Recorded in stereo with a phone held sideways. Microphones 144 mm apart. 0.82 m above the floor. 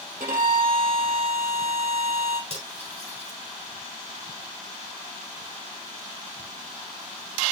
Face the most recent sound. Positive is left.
turn(degrees=-45)  # may be behind; listen again after turning